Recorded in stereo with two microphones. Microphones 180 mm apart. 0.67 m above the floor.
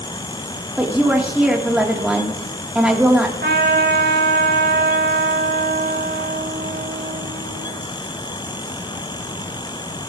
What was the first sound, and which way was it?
A woman speaking, 5° right (ahead or behind).